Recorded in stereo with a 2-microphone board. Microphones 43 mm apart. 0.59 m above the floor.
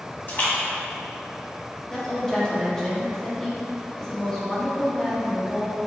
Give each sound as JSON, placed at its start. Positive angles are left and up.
{"t": 0.3, "sound": "a splash", "side_deg": 50, "distance_m": 1.4}
{"t": 1.9, "sound": "a woman speaking", "side_deg": 15, "distance_m": 0.8}